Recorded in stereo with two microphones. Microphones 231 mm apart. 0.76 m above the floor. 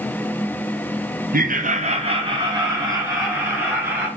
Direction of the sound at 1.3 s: 40° right (ahead or behind).